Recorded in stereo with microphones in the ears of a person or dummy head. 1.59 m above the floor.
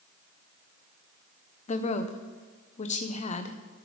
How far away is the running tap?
No running tap in this recording.